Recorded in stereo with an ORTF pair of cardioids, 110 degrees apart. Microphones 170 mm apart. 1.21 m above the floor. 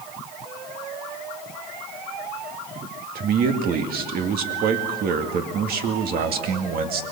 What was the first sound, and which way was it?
A man speaking, 65° right.